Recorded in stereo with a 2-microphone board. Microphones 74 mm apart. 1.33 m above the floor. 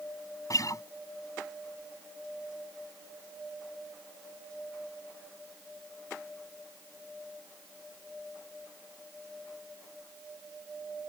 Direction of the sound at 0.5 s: 50° left (ahead or behind).